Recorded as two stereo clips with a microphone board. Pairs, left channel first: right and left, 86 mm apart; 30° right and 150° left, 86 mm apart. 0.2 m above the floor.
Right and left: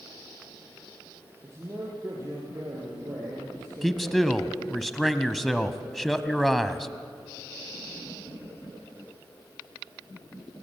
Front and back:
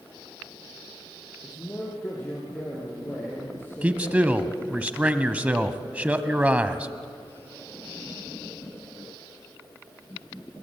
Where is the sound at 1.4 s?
35° left, 5.5 m.